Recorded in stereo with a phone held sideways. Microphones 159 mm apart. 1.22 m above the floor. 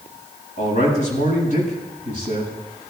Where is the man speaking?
55° left (ahead or behind), 8 m.